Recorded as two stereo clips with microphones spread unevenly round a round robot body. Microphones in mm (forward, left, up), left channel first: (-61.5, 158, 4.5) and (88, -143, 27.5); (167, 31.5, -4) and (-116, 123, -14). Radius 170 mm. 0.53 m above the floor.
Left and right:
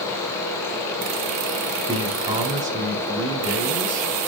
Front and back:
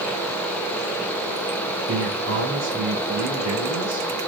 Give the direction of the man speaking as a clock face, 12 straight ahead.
5 o'clock.